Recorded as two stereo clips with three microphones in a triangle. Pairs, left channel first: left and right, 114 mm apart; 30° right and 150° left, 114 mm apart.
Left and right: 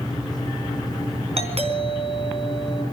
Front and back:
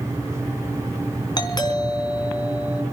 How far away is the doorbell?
About 4 m.